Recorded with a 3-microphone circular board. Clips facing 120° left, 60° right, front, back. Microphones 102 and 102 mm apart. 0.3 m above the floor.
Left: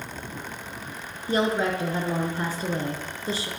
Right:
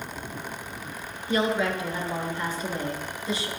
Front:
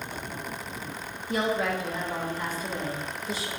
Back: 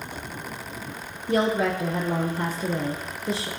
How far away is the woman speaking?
About 4 m.